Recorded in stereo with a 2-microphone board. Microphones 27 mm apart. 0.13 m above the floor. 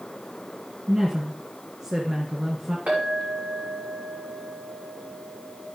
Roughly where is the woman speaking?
Right.